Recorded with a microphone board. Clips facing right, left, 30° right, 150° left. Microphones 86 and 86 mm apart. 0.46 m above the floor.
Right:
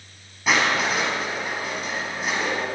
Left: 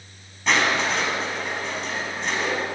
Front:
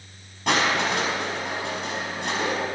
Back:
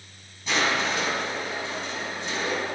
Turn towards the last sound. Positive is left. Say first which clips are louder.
# even, front 3 dB
turn(degrees=-5)